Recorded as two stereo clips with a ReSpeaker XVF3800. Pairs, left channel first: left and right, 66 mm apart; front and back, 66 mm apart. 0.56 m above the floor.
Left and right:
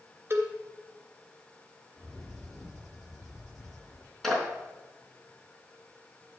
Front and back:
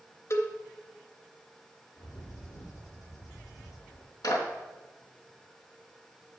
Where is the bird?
5° right, 7.5 m.